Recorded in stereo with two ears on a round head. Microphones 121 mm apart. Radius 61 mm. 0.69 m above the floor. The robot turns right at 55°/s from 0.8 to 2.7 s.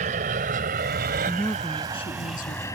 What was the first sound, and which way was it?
An aircraft, 60° right (ahead or behind).